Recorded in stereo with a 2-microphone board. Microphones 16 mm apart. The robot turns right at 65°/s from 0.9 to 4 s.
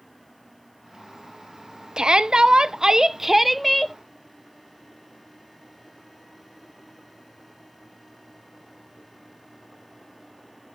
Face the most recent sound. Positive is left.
turn(degrees=20)